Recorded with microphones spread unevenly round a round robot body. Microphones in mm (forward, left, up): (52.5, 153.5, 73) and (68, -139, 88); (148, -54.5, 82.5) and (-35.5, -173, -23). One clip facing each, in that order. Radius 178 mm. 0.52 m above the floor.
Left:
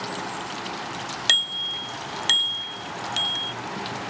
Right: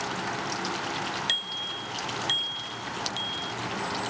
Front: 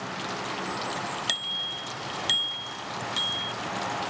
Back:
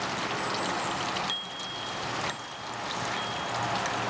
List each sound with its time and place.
1.3 s a bicycle bell: 80° left; by 3.5 s 75° left